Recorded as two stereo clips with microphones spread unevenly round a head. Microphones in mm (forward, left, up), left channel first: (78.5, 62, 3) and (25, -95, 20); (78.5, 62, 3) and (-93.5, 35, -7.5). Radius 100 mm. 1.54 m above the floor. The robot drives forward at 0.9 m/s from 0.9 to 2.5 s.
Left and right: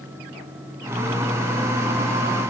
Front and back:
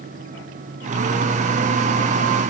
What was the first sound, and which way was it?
Only background noise.